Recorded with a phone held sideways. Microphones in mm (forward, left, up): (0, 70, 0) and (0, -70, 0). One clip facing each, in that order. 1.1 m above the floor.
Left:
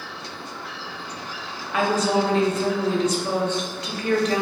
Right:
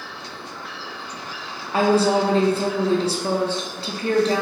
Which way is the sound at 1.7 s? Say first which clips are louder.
Right 4 dB; 30° right (ahead or behind).